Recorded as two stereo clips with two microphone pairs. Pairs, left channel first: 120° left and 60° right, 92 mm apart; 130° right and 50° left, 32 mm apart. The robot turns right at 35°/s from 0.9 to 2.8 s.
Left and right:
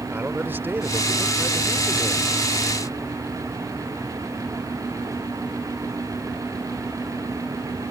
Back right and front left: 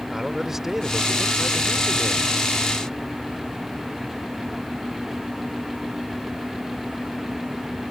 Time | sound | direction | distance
0.1 | a man speaking | 15° right | ?